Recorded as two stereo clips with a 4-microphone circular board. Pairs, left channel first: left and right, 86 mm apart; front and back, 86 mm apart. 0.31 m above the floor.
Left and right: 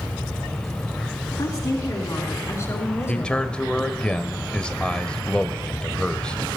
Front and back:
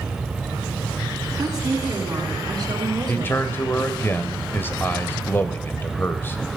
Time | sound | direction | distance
1.4 | a woman speaking | 130° left | 3.5 m
3.1 | a man speaking | 25° left | 1.0 m